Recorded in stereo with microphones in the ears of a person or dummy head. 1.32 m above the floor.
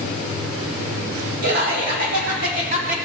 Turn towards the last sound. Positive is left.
turn(degrees=-65)  # may be behind; listen again after turning